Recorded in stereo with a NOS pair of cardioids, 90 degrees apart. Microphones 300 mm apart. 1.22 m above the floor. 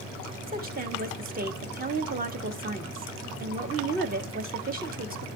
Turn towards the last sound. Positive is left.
turn(degrees=-30)